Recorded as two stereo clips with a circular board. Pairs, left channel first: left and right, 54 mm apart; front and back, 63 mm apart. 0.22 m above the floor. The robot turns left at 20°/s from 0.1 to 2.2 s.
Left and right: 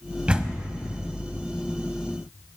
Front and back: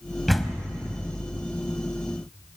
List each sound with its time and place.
0.3 s a door slam: 90° right, 0.7 m; by 0.7 s 95° right, 0.7 m